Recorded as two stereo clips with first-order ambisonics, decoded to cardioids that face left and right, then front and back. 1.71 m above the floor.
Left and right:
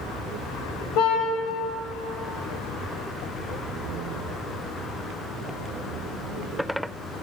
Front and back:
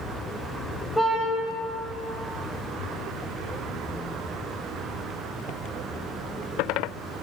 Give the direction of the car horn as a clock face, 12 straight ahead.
9 o'clock.